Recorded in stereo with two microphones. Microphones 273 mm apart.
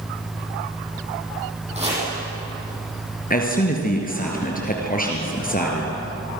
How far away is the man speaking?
About 3.5 m.